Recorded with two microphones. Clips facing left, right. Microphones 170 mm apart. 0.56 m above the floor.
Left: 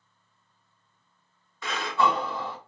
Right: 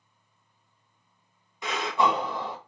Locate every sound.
1.6 s breathing: 20° right (ahead or behind), 0.6 m